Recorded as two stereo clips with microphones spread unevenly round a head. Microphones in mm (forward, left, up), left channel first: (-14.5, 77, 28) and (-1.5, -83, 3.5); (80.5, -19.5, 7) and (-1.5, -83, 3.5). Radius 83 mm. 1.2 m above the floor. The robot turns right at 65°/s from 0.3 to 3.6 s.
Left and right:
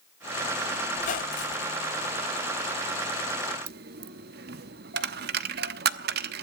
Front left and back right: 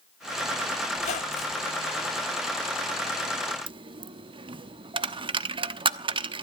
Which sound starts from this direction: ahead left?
A squeak, at 0.9 s.